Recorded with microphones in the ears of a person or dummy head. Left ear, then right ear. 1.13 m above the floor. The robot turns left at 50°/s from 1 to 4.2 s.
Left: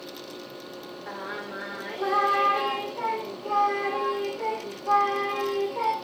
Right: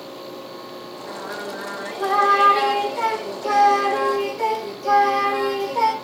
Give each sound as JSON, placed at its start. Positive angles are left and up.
{"t": 1.1, "sound": "singing", "azimuth_deg": 50, "distance_m": 4.0}